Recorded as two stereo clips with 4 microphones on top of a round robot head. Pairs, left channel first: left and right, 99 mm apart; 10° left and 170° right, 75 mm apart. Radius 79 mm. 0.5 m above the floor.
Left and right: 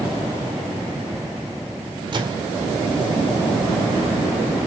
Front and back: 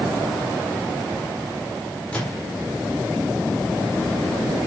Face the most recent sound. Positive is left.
turn(degrees=-65)